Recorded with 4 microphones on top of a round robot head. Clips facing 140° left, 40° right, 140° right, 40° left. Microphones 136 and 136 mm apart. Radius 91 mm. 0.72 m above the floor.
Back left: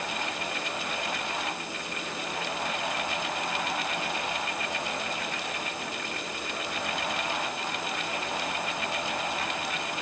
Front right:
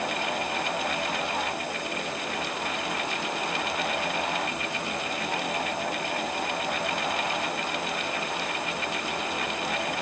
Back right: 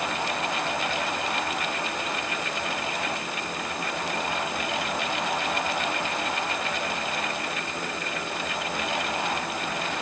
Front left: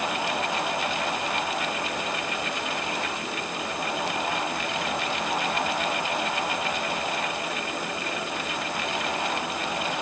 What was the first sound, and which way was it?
Only background noise.